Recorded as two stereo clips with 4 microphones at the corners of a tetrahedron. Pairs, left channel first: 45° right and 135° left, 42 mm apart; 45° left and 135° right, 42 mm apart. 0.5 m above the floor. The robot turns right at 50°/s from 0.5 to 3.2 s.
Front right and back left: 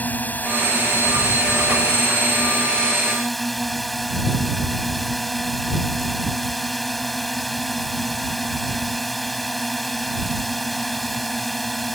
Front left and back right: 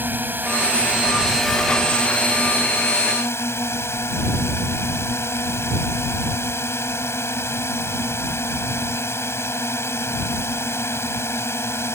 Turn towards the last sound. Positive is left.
turn(degrees=40)